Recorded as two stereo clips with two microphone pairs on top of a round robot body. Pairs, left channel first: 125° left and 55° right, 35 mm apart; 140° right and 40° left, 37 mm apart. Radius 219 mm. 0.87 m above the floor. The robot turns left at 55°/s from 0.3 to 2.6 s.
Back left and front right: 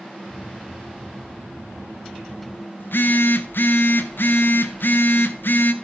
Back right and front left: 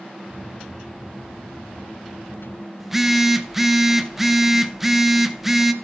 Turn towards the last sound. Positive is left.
turn(degrees=125)